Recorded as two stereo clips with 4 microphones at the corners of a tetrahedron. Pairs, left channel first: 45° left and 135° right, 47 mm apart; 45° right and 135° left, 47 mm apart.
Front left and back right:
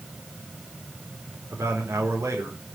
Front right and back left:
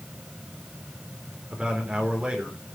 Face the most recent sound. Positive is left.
turn(degrees=-155)